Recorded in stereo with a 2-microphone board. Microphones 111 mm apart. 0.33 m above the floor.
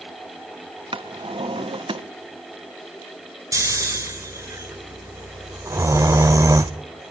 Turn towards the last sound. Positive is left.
turn(degrees=-25)  # may be behind; listen again after turning